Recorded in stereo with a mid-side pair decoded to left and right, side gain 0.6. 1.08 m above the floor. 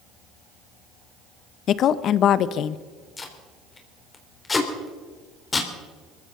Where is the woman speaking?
55° left, 0.9 m.